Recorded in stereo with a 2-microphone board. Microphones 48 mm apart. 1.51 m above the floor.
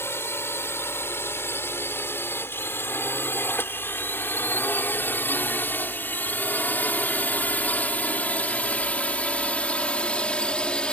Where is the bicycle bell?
No bicycle bell in this recording.